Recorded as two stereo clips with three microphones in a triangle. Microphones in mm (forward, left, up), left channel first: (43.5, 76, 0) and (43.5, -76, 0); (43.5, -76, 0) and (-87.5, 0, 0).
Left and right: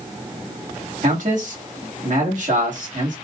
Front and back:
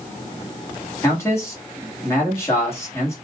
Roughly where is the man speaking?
Right.